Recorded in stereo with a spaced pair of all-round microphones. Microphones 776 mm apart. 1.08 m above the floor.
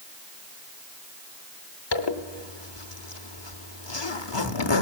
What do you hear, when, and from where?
1.9 s a zipper: 35° left (ahead or behind), 0.9 m